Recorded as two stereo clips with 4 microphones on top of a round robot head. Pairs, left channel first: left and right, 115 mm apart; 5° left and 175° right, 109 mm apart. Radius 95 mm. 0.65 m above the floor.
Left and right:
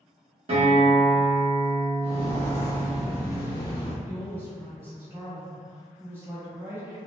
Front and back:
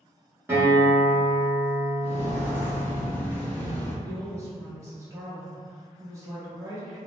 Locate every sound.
0.5 s a guitar: 105° right, 1.0 m
2.0 s footsteps: 80° right, 0.9 m; by 3.9 s 80° left, 0.9 m
4.0 s a woman speaking: 140° right, 0.8 m